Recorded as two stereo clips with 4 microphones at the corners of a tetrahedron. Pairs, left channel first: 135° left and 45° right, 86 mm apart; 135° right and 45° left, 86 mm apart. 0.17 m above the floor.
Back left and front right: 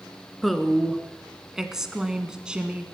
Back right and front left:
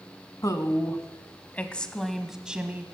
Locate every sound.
0.4 s a woman speaking: 135° right, 1.4 m; by 2.9 s 10° left, 1.2 m